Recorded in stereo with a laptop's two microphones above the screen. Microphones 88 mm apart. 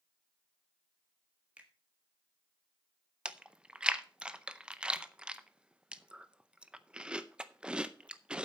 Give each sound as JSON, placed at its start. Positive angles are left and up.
{"t": 1.6, "sound": "a finger snap", "side_deg": -15, "distance_m": 1.3}
{"t": 3.2, "sound": "chewing", "side_deg": -10, "distance_m": 0.5}